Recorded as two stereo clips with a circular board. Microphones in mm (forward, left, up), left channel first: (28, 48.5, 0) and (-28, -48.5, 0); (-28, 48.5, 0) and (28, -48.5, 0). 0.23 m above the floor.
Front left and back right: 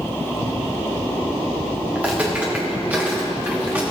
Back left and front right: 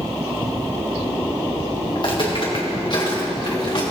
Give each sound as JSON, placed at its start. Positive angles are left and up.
{"t": 1.9, "sound": "footsteps", "azimuth_deg": 165, "distance_m": 2.5}